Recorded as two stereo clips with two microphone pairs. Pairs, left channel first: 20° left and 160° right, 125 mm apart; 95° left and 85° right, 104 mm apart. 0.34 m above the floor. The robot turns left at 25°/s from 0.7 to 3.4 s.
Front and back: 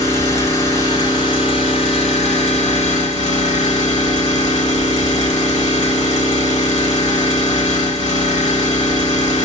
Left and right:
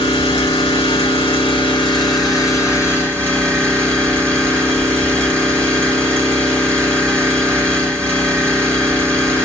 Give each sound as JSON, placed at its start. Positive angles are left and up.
{"t": 0.0, "sound": "an engine running", "azimuth_deg": 85, "distance_m": 1.9}